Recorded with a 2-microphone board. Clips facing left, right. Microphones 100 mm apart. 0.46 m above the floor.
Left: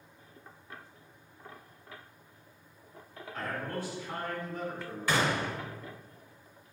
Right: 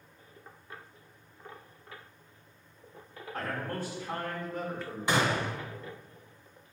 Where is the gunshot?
20° right (ahead or behind), 0.6 m.